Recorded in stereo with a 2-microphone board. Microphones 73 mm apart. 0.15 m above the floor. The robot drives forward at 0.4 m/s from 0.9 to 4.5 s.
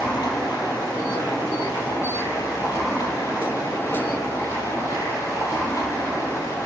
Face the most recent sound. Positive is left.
turn(degrees=50)  # may be behind; listen again after turning